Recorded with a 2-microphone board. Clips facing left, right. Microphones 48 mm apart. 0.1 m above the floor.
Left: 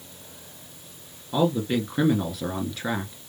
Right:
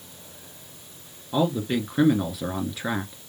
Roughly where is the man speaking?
Centre.